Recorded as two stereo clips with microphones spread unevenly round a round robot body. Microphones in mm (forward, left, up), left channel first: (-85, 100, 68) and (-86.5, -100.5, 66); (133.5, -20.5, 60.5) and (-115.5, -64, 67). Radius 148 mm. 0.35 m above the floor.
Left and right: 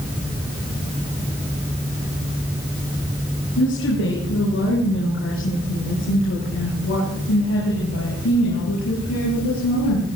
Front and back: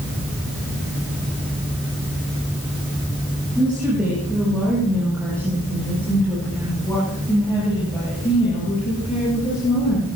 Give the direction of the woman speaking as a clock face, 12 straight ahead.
9 o'clock.